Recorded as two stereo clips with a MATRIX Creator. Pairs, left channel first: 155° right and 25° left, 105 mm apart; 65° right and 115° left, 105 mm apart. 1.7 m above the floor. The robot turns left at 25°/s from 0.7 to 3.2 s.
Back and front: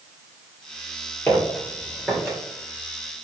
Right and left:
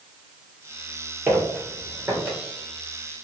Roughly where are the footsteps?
Behind.